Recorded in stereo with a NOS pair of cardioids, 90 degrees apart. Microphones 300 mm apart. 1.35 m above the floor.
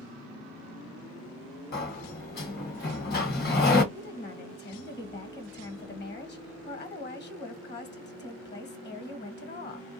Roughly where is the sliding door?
Ahead left.